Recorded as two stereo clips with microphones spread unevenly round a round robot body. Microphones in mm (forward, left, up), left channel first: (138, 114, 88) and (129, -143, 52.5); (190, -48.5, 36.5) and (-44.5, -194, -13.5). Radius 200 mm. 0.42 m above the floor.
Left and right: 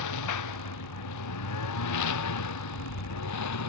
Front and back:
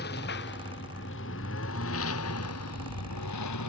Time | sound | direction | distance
0.0 | a lawn mower | 100° left | ?